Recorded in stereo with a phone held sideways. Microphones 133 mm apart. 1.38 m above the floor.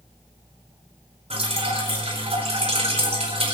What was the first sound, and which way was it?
Dripping, 50° right (ahead or behind).